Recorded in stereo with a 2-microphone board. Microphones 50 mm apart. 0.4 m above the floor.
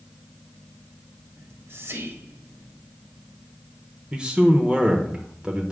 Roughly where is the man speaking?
Centre.